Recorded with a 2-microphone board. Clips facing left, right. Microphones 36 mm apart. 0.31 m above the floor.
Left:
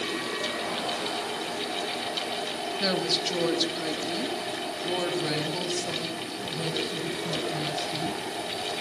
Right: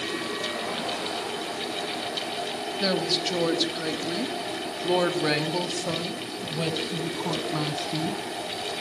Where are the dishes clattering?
No dishes clattering in this recording.